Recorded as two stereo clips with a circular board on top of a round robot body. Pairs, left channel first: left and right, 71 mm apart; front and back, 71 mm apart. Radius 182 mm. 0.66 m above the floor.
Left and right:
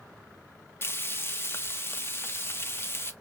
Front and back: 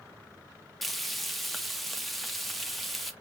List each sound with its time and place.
0.8 s frying: 90° left, 1.1 m